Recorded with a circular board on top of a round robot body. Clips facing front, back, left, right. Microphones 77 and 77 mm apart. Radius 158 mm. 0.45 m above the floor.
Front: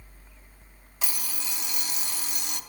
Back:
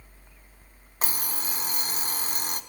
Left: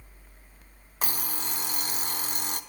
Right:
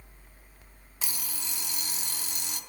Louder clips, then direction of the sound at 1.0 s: Back 4 dB, left 7 dB; 130° left.